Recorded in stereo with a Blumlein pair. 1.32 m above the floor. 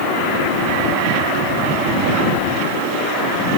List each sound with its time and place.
Only background noise.